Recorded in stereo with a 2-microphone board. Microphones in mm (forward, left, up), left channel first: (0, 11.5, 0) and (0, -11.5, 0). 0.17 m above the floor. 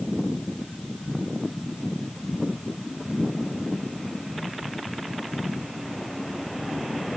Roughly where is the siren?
No siren in this recording.